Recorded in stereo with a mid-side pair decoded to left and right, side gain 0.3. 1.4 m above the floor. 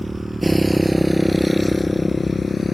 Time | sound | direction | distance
0.0 | a motorcycle | 15° right | ?